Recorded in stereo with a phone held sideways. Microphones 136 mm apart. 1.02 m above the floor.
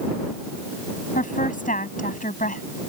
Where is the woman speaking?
80° left.